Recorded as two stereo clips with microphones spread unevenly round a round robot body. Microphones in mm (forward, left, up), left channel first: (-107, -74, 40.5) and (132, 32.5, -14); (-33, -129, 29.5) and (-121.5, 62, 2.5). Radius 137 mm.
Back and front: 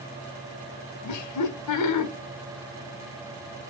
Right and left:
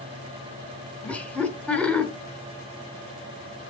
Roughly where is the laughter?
Behind right.